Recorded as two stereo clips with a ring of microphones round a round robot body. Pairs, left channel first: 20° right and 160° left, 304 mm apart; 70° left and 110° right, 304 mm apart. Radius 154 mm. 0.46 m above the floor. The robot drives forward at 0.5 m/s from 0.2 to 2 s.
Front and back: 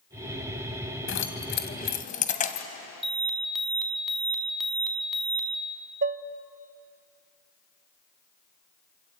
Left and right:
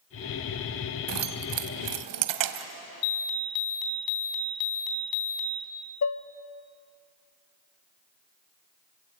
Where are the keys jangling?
75° right, 1.8 m; by 2.7 s 90° right, 1.7 m.